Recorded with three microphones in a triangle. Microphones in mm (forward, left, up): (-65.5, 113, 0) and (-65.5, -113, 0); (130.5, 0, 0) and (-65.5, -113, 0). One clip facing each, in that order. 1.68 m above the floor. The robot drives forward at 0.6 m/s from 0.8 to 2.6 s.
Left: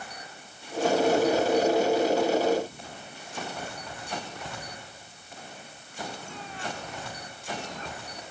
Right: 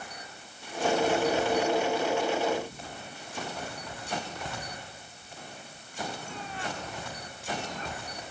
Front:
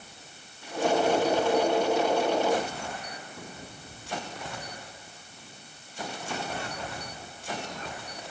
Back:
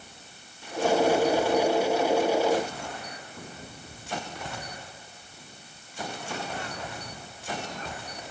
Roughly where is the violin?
I don't hear a violin.